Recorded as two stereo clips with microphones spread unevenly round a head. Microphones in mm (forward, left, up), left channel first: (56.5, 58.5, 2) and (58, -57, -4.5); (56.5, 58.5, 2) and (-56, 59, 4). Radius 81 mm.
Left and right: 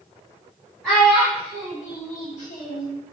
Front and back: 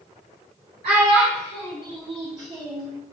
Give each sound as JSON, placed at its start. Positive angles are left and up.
{"t": 0.8, "sound": "a child speaking", "azimuth_deg": -175, "distance_m": 1.8}